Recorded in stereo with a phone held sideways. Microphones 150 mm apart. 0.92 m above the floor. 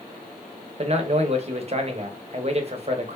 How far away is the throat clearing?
No throat clearing in this recording.